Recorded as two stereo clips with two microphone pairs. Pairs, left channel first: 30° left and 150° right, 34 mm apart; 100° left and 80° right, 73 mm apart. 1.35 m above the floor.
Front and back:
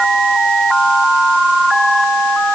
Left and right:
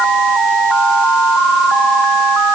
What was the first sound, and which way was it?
Only background noise.